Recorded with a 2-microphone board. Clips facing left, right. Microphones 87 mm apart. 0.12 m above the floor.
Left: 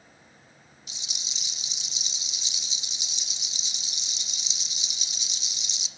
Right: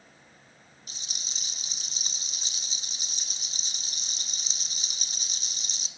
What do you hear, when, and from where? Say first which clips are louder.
0.9 s a rattle: left 1 dB; 45° right (ahead or behind), 1.7 m